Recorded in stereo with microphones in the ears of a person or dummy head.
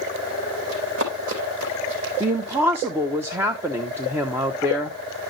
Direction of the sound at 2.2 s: 15° right (ahead or behind).